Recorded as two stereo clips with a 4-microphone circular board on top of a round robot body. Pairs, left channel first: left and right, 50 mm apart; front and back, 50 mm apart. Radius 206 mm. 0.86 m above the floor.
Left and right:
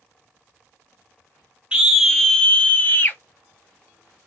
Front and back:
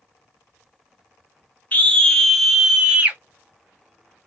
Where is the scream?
30° right, 1.0 m; by 3.2 s 125° left, 1.2 m.